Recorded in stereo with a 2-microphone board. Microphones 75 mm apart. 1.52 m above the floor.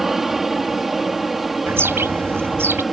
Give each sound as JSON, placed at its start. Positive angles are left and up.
{"t": 0.0, "sound": "an aircraft", "side_deg": 0}
{"t": 1.7, "sound": "a bird", "side_deg": -35}